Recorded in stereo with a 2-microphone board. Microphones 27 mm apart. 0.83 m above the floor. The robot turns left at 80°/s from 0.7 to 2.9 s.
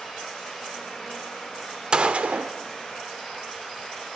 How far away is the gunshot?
About 1.0 m.